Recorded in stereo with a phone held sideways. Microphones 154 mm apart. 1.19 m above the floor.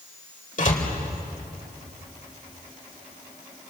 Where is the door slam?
60° left (ahead or behind), 3 m.